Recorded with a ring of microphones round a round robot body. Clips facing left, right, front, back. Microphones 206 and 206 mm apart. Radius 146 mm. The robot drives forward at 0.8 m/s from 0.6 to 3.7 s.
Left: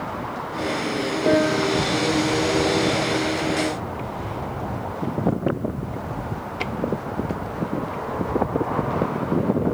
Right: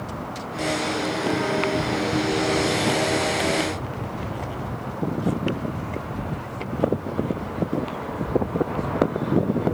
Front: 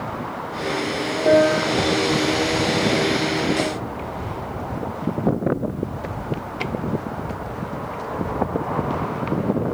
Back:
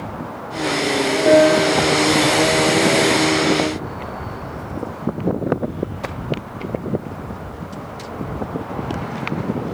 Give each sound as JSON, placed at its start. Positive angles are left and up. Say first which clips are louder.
{"t": 1.3, "sound": "a piano", "louder": "left 6 dB, back 3 dB", "azimuth_deg": 125}